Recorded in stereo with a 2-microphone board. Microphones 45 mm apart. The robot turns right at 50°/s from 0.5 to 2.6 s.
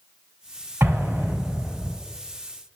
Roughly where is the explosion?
Behind right.